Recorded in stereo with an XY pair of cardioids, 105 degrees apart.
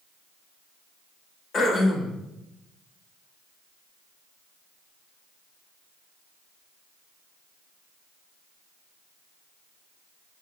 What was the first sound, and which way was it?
Throat clearing, 50° left.